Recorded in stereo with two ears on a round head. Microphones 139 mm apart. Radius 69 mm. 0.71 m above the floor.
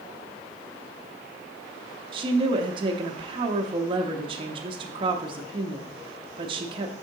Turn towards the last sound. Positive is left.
turn(degrees=-30)  # may be behind; listen again after turning